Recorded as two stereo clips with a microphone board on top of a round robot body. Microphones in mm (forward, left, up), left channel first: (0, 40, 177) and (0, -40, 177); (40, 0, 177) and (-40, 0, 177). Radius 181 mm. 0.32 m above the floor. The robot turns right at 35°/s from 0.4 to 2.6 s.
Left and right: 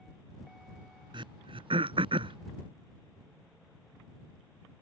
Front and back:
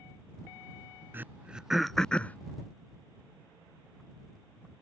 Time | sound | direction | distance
1.1 | throat clearing | 115° right | ?